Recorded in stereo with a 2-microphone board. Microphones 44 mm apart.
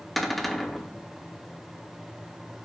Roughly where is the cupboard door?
Centre.